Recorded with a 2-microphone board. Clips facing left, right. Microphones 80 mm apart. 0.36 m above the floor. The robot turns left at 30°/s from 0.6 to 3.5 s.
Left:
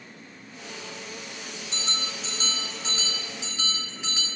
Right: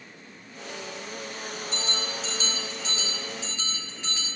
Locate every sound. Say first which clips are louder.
1.7 s a bell: even; 70° left, 5 m; by 4.3 s 15° left, 5 m